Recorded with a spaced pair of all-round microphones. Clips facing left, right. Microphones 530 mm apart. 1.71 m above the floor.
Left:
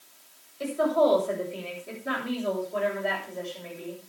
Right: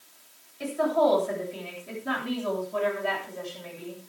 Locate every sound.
0.6 s a woman speaking: 15° right (ahead or behind), 8.5 m; by 4.0 s 35° right (ahead or behind), 8 m